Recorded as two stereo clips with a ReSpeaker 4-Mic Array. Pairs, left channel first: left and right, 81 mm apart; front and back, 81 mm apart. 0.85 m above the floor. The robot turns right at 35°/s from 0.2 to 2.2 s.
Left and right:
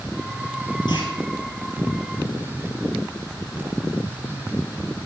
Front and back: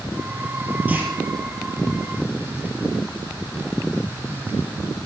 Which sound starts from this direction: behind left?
A clunk, at 0.9 s.